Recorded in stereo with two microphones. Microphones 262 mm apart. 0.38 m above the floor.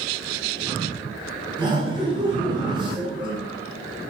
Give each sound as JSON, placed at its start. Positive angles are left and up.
{"t": 1.6, "sound": "laughter", "side_deg": -15, "distance_m": 0.9}